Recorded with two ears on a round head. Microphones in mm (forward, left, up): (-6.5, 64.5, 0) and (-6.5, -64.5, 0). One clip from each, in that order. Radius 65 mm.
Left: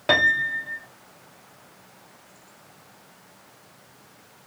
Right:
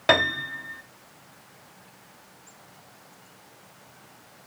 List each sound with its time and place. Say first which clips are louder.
0.1 s a piano: left 3 dB; 35° right (ahead or behind), 1.2 m